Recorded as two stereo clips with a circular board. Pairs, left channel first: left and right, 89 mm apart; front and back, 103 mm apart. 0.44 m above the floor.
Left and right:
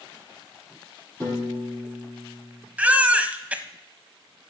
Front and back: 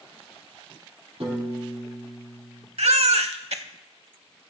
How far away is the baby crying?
About 0.7 m.